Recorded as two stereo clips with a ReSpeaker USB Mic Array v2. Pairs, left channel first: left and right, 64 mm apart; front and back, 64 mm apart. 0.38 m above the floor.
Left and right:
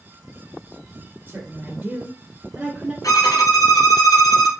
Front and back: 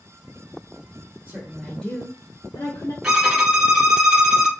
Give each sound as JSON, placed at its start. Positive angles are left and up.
{"t": 1.3, "sound": "a woman speaking", "azimuth_deg": -125, "distance_m": 1.3}
{"t": 3.0, "sound": "a violin", "azimuth_deg": 110, "distance_m": 1.8}